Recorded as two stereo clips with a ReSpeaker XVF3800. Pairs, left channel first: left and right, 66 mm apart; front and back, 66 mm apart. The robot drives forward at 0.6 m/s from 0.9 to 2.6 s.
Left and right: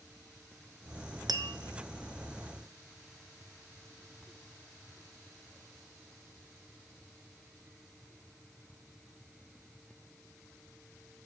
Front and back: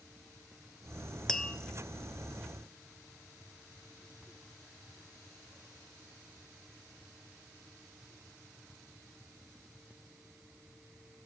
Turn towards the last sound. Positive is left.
turn(degrees=-135)